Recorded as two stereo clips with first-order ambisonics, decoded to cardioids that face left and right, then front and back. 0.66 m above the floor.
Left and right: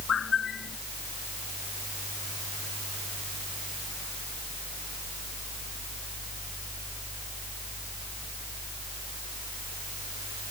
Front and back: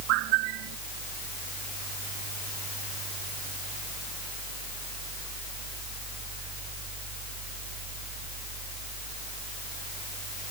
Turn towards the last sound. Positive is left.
turn(degrees=155)